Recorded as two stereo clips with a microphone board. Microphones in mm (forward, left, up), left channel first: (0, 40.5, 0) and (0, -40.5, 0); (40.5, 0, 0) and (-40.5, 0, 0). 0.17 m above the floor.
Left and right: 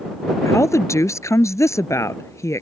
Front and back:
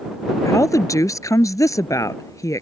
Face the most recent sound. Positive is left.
turn(degrees=45)